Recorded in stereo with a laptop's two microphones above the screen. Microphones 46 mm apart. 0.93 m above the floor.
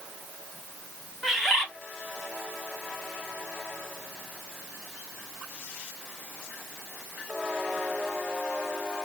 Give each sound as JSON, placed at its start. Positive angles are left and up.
{"t": 1.2, "sound": "a bird", "side_deg": 0, "distance_m": 1.8}